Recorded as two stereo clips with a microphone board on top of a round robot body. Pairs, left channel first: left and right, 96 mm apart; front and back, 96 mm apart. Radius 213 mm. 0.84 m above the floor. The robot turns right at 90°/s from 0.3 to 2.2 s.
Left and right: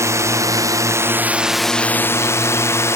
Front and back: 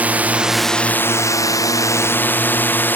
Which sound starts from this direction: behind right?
A drone, at 0.0 s.